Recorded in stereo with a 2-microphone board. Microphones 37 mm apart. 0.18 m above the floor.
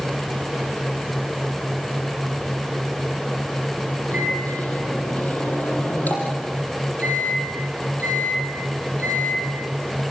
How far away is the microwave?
About 6 m.